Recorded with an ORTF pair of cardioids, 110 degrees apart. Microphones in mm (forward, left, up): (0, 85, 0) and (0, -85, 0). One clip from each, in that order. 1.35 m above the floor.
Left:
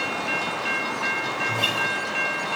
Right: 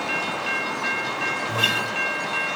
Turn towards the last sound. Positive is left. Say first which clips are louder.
# right 1 dB
turn(degrees=-15)